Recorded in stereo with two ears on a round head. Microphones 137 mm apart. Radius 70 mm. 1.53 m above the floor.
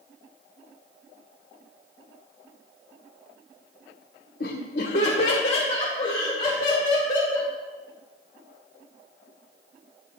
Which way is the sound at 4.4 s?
60° left (ahead or behind).